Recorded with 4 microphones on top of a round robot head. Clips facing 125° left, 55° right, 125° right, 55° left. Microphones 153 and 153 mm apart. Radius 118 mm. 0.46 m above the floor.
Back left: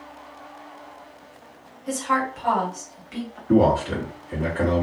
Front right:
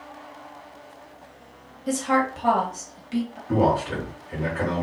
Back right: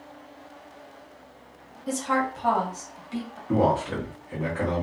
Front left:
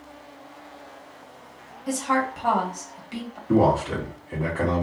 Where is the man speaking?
125° left, 1.4 m.